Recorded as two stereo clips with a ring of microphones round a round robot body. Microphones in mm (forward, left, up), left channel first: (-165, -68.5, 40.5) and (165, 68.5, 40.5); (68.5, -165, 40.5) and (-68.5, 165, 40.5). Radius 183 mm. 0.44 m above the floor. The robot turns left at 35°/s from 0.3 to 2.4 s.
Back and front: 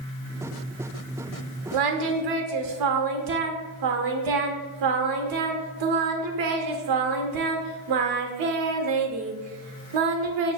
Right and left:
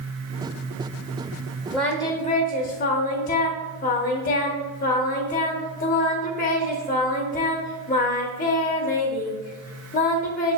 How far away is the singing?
About 0.6 m.